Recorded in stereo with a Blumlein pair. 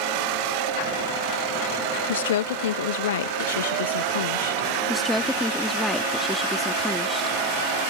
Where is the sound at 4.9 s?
5° left.